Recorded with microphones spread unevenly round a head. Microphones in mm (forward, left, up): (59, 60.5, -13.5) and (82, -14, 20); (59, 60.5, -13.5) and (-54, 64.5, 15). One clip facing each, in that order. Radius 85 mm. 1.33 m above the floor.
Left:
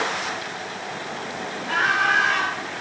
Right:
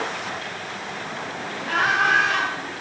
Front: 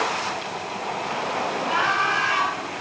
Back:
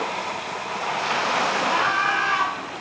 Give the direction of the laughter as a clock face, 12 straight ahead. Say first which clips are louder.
Right 1 dB, back 1 dB; 2 o'clock.